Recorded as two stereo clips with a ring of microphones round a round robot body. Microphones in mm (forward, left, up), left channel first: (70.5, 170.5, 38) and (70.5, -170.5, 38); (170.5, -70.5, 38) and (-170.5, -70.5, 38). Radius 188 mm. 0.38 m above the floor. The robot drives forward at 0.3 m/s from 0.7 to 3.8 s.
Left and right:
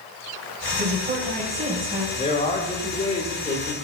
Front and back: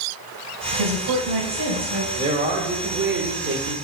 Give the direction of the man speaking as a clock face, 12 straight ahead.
8 o'clock.